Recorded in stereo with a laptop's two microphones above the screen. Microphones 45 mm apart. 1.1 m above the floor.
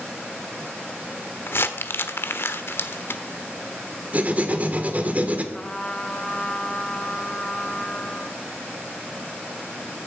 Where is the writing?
35° right (ahead or behind), 2 m.